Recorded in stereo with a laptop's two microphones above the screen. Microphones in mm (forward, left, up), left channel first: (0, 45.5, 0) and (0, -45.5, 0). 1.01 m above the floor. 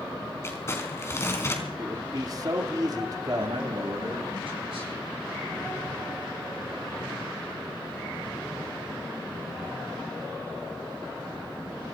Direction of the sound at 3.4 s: 85° right.